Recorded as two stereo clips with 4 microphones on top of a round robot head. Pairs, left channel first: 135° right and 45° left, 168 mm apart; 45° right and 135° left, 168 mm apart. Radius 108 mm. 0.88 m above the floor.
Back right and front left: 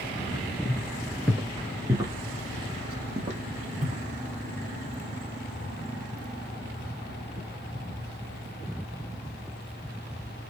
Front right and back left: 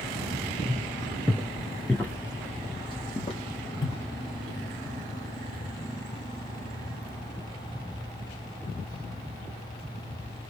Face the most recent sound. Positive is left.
turn(degrees=0)